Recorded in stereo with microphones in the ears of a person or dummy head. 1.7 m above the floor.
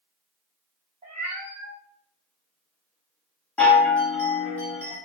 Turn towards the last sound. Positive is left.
turn(degrees=5)  # may be behind; listen again after turning